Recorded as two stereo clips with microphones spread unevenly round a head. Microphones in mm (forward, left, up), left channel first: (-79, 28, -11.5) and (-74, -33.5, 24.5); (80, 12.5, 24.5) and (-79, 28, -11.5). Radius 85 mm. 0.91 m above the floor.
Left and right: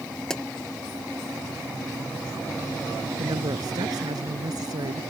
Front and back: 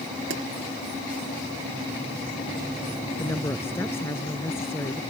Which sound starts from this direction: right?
A woman speaking, at 3.2 s.